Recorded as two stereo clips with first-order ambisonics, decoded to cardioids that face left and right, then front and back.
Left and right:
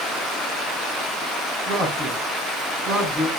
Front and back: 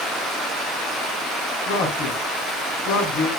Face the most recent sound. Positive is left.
turn(degrees=-30)